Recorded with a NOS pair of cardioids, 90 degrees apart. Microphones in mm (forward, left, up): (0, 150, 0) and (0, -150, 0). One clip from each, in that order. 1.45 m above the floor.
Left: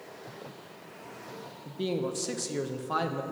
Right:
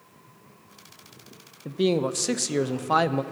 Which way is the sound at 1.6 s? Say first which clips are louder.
Right 8 dB; 35° right.